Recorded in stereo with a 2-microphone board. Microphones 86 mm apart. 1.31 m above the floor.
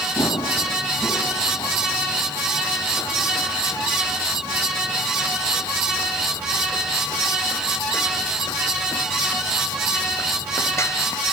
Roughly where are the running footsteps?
Left.